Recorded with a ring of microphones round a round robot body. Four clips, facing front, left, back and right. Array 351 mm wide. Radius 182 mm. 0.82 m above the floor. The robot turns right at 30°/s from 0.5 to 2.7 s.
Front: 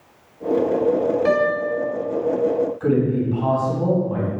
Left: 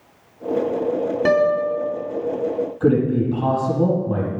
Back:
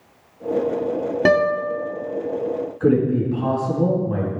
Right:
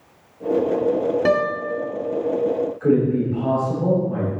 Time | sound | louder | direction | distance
1.2 | a guitar | left 3 dB, back 1 dB | straight behind | 3 m
2.8 | a man speaking | left 1 dB, back 6 dB | 110° left | 6 m